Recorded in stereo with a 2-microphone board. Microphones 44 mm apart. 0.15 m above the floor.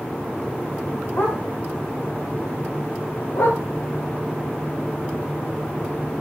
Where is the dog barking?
70° left (ahead or behind), 6 m; by 3.6 s 85° left, 8 m.